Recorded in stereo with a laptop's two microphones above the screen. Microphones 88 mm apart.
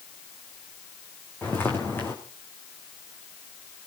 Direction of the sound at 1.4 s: 25° left (ahead or behind).